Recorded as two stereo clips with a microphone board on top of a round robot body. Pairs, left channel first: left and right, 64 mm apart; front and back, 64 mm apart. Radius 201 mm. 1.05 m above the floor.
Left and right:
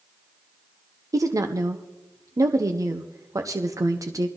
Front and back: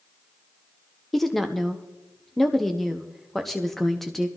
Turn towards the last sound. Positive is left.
turn(degrees=-85)